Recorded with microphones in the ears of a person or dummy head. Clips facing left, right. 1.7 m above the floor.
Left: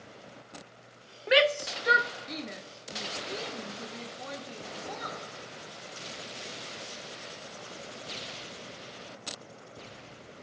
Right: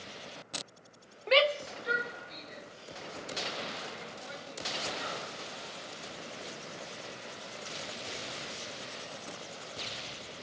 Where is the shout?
10° left (ahead or behind), 0.7 m; by 5.2 s 70° left (ahead or behind), 4.5 m.